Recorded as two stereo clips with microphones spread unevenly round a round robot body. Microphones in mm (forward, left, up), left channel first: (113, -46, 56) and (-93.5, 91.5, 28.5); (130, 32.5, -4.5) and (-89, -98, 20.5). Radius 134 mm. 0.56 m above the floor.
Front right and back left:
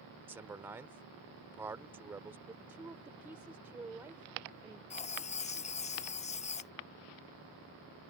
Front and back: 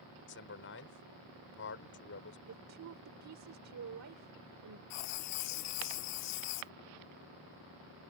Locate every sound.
0.3 s a man speaking: 70° left
2.5 s a woman speaking: 135° right
4.9 s writing: 30° left